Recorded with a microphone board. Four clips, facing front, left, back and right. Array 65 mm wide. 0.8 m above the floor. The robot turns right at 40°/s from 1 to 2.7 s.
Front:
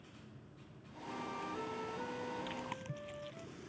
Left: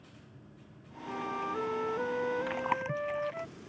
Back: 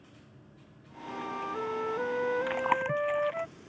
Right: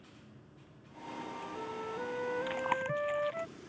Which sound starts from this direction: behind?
Chewing, at 2.5 s.